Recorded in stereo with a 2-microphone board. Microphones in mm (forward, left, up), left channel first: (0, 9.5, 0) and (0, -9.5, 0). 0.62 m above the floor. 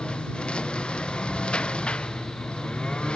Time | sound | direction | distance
0.0 | a lawn mower | 60° left (ahead or behind) | ?